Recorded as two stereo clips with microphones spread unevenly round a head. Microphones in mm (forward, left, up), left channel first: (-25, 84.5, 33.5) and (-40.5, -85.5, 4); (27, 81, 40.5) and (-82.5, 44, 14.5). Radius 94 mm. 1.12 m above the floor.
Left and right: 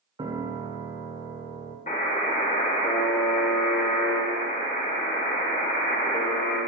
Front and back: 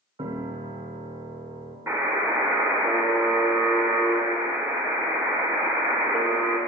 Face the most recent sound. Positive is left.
turn(degrees=125)